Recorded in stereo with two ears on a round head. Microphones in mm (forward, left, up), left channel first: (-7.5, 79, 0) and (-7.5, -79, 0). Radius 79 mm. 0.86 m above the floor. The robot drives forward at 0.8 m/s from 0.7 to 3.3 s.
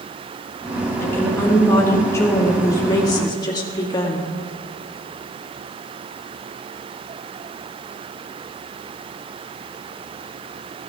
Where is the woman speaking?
15° left (ahead or behind), 3.5 m; by 4.3 s 25° left (ahead or behind), 2.0 m.